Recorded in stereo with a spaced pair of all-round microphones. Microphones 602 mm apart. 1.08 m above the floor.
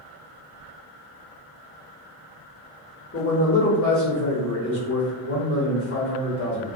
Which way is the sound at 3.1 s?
20° left (ahead or behind).